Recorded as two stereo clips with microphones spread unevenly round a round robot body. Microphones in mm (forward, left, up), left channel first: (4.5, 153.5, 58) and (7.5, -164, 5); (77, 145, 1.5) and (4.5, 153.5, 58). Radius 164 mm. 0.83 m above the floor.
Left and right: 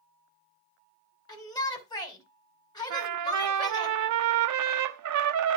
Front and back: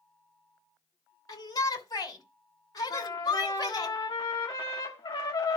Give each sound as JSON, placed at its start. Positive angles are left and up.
{"t": 1.3, "sound": "a shout", "azimuth_deg": 10, "distance_m": 3.0}
{"t": 2.9, "sound": "a trumpet", "azimuth_deg": -55, "distance_m": 0.8}